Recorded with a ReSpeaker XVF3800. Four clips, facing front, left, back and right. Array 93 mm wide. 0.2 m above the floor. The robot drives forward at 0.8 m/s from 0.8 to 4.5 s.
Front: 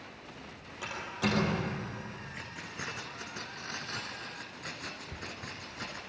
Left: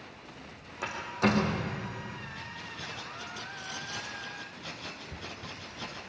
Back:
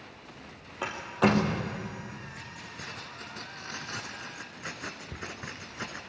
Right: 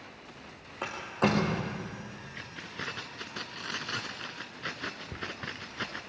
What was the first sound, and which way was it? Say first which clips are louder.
A door slam: even, back 8 dB; 140° right.